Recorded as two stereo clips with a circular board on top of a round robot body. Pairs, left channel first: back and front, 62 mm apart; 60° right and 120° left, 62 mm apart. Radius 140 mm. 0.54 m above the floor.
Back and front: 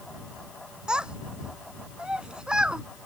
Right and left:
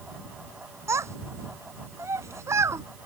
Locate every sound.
0.9 s a child speaking: 75° left